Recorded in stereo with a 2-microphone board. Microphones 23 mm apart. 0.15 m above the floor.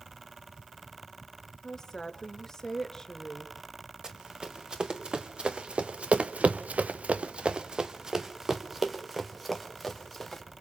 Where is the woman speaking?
20° left (ahead or behind), 2 m.